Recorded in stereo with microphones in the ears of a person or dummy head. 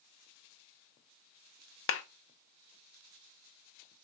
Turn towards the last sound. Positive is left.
turn(degrees=55)  # may be behind; listen again after turning